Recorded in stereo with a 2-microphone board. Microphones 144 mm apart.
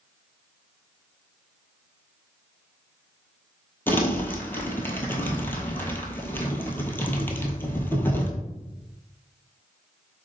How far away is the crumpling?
About 0.9 m.